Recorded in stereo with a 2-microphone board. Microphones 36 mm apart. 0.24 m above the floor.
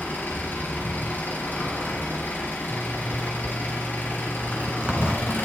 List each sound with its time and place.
0.0 s an engine running: 65° left (ahead or behind), 3.5 m
2.7 s a zipper: 25° right (ahead or behind), 0.9 m